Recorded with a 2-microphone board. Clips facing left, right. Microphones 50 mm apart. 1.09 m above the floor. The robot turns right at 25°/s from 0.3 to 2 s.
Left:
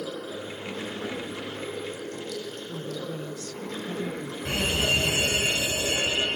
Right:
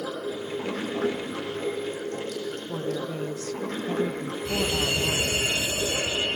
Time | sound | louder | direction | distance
0.0 | running water | right 3 dB | 85° right | 7 m
2.7 | a woman speaking | right 4 dB | 40° right (ahead or behind) | 0.8 m
4.5 | a fire alarm | left 1 dB | 50° left (ahead or behind) | 8.5 m